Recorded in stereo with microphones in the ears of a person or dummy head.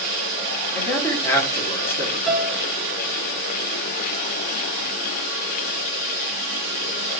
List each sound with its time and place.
0.7 s a man speaking: 10° left (ahead or behind), 1.3 m
2.3 s a piano: centre (ahead or behind), 1.0 m